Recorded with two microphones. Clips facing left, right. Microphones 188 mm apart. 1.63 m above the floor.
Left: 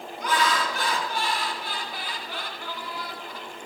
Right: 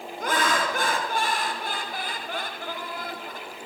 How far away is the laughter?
About 1.3 m.